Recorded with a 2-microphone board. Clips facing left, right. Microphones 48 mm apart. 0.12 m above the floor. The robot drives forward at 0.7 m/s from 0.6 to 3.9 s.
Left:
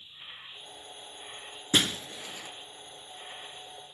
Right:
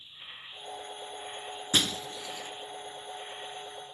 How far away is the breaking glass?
About 0.6 m.